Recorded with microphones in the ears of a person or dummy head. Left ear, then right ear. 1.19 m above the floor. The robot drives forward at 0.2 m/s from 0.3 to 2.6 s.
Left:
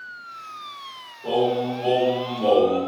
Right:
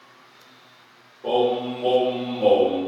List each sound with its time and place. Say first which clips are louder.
1.2 s singing: right 1 dB; 60° right (ahead or behind), 1.6 m; by 2.8 s 55° right (ahead or behind), 1.8 m